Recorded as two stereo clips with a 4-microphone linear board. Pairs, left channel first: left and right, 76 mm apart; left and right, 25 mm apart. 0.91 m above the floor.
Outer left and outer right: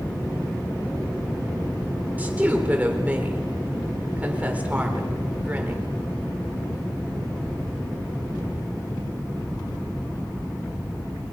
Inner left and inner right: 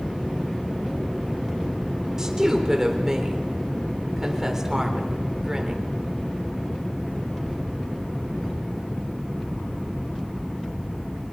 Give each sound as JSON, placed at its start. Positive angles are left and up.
{"t": 2.2, "sound": "a woman speaking", "side_deg": -20, "distance_m": 3.5}